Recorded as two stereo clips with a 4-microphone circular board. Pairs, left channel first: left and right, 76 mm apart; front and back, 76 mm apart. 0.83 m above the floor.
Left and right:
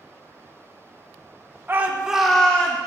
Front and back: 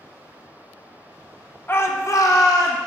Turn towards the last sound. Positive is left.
turn(degrees=25)